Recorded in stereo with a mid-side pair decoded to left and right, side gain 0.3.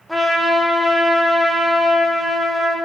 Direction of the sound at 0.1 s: Straight ahead.